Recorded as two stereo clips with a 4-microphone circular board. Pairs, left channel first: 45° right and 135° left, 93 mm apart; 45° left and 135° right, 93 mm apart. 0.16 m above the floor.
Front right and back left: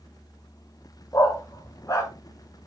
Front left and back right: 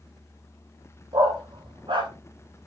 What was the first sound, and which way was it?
A dog barking, 100° right.